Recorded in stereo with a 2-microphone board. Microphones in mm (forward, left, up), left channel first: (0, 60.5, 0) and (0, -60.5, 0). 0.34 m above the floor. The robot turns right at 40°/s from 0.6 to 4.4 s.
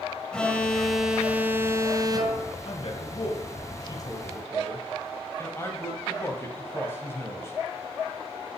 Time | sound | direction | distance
0.3 | an alarm | 170° left | 2 m
2.6 | a man speaking | 55° left (ahead or behind) | 2 m